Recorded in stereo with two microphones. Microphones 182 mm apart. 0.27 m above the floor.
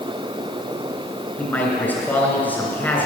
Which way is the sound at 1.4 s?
10° left (ahead or behind).